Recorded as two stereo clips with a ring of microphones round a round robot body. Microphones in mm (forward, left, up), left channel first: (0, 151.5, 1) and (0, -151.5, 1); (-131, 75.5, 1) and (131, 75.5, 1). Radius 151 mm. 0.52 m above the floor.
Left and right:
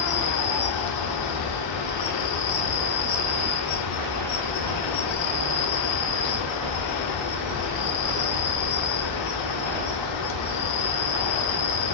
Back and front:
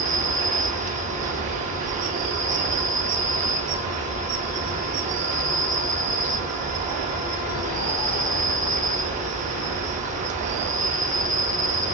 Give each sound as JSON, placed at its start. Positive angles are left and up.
{"t": 0.0, "sound": "an insect", "azimuth_deg": 65, "distance_m": 0.9}